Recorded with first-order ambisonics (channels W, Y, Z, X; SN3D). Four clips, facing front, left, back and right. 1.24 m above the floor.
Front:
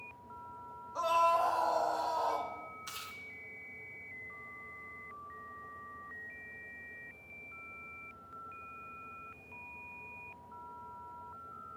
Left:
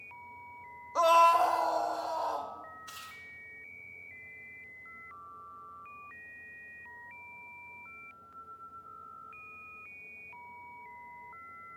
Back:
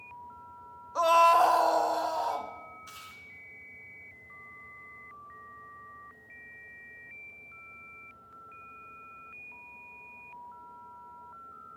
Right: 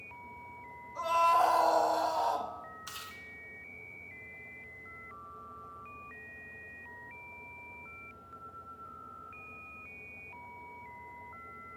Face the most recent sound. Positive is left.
turn(degrees=-65)